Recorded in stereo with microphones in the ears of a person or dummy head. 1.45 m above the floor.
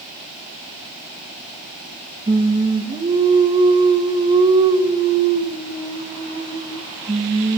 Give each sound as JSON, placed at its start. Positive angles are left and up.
{"t": 2.3, "sound": "singing", "side_deg": -20, "distance_m": 2.5}